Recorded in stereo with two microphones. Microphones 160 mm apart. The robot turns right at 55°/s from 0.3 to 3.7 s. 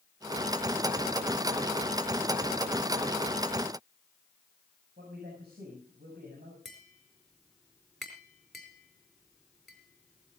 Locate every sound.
5.0 s a man speaking: 90° right, 6.5 m
6.7 s tapping: centre (ahead or behind), 4.5 m